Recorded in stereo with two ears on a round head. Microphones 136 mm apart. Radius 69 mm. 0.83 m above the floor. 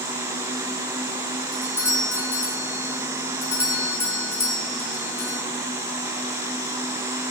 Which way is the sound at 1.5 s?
20° left (ahead or behind).